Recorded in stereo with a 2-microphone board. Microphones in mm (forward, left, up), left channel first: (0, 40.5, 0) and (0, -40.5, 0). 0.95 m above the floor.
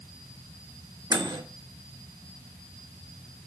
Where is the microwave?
65° right (ahead or behind), 1.5 m.